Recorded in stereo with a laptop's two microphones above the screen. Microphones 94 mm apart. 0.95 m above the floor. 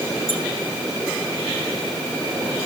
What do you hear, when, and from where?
0.3 s a squeak: 25° right (ahead or behind), 10 m